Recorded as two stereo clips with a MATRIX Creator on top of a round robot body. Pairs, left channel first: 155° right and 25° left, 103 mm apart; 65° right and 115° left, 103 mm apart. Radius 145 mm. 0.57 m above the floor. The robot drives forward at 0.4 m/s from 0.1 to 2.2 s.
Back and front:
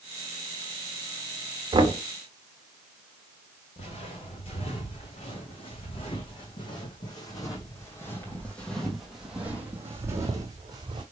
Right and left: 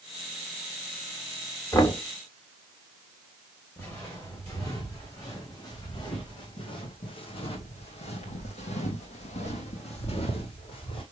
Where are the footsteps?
135° right, 3 m; by 11.0 s 30° right, 1.7 m.